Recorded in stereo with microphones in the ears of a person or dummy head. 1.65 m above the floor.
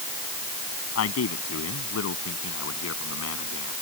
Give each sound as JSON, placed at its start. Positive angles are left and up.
{"t": 0.9, "sound": "a man speaking", "side_deg": 85}